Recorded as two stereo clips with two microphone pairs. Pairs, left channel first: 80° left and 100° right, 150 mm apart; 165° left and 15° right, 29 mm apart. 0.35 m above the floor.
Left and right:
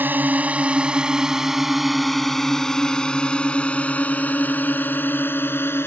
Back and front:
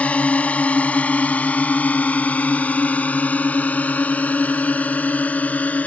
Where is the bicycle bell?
I don't hear a bicycle bell.